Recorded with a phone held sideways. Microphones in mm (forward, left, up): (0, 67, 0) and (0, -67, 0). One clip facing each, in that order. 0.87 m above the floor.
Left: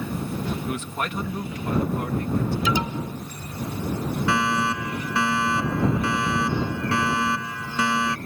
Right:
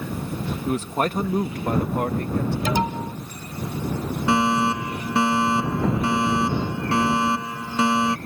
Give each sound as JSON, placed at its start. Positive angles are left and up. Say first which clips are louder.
{"t": 0.7, "sound": "a man speaking", "louder": "right 5 dB", "side_deg": -30}
{"t": 2.6, "sound": "an alarm", "louder": "right 2 dB", "side_deg": -50}
{"t": 4.3, "sound": "a fire alarm", "louder": "right 5 dB", "side_deg": -25}